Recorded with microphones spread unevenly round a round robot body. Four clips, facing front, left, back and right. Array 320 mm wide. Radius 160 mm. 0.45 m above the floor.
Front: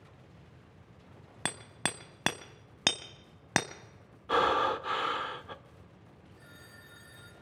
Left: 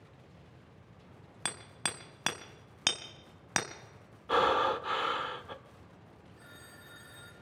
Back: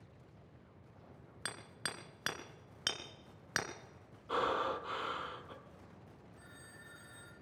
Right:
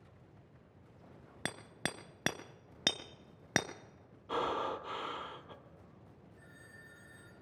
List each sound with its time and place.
1.4 s hammering: 25° right, 0.8 m
4.3 s breathing: 40° left, 1.1 m
6.4 s a phone ringing: 95° left, 5 m